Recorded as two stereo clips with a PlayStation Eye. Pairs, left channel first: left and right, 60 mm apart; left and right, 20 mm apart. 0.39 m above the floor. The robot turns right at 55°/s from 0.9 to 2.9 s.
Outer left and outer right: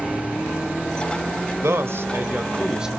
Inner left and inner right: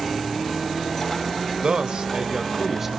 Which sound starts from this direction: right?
A man speaking, at 1.6 s.